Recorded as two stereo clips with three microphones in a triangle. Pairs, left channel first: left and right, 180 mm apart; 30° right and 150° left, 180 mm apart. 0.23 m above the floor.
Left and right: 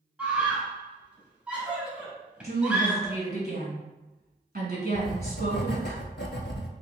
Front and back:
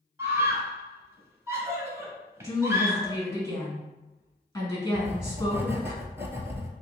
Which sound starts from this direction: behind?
A scream, at 0.2 s.